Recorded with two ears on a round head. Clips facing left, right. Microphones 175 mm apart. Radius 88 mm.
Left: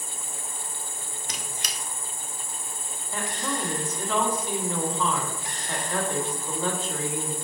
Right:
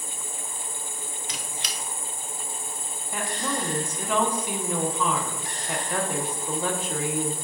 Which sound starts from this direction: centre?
A woman speaking, at 3.1 s.